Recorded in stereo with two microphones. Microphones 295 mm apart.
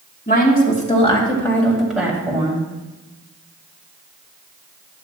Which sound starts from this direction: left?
A woman speaking, at 0.3 s.